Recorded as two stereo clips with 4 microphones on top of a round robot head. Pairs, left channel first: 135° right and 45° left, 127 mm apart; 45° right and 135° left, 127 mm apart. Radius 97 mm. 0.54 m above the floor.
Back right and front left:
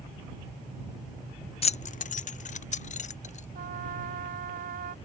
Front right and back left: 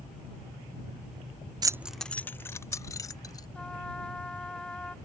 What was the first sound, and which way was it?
Keys jangling, 170° right.